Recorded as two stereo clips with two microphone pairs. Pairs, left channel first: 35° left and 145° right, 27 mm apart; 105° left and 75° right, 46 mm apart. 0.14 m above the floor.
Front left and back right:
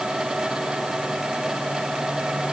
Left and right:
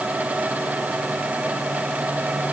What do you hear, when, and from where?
Only background noise.